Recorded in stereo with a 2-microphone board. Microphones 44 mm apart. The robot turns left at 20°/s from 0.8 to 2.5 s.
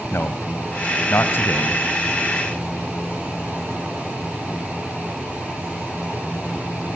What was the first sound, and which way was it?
A man speaking, 65° left (ahead or behind).